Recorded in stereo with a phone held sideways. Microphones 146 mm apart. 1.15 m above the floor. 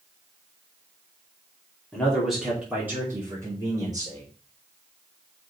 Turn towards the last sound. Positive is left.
turn(degrees=-30)  # may be behind; listen again after turning